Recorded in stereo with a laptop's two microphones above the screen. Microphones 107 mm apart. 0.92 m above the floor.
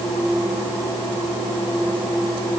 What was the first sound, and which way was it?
Only background noise.